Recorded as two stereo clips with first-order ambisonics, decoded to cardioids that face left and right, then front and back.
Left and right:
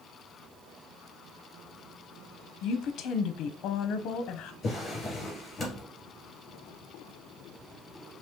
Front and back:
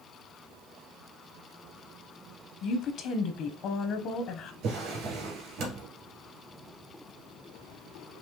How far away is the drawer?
About 2 m.